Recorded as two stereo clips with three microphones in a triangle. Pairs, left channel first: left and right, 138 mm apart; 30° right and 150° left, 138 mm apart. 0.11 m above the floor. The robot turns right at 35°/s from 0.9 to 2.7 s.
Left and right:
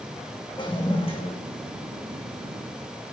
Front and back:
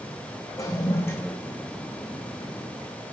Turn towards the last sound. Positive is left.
turn(degrees=100)